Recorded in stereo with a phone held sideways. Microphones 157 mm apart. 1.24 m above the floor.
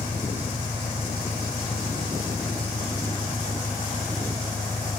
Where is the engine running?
50° left (ahead or behind).